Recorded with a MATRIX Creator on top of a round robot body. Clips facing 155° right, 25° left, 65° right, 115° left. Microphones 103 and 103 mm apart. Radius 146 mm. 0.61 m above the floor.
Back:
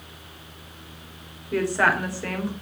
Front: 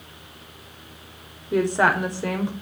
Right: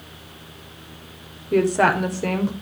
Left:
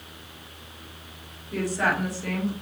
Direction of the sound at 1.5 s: 45° right.